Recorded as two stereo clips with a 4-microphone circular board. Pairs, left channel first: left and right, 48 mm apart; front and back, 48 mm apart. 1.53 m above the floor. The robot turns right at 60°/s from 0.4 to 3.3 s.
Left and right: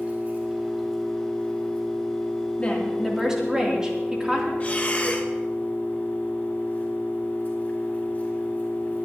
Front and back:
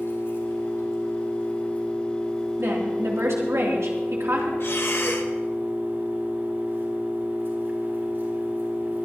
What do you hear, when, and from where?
0.0 s an engine running: 25° right, 5 m; by 9.1 s 145° left, 5 m
2.6 s a woman speaking: 155° left, 3 m; by 4.5 s 165° right, 3 m
4.6 s breathing: 30° left, 1.2 m